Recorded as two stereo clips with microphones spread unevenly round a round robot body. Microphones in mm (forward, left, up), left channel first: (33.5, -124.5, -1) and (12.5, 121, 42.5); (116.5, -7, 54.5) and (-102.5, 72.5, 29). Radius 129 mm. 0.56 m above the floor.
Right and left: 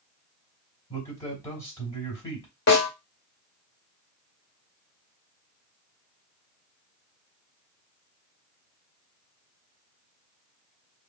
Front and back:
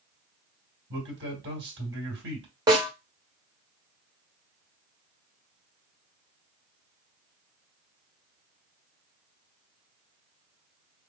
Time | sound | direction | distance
0.9 | a man speaking | 160° right | 2.5 m
2.7 | a snare drum | 130° right | 1.8 m